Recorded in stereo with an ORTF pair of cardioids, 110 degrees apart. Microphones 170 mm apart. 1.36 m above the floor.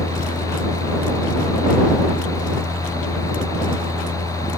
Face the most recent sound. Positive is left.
turn(degrees=20)